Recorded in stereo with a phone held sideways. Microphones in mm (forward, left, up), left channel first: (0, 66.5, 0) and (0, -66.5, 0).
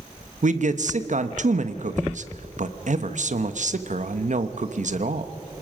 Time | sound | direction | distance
0.4 | a man speaking | 65° right (ahead or behind) | 1.0 m